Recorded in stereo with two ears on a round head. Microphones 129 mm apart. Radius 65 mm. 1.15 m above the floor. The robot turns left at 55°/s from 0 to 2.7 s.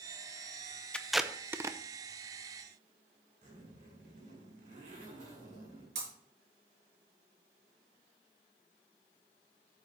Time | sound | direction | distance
0.9 | tape being pulled | 5° left (ahead or behind) | 0.6 m
3.4 | a zipper | 55° right (ahead or behind) | 5.5 m
6.0 | breaking glass | 45° right (ahead or behind) | 6 m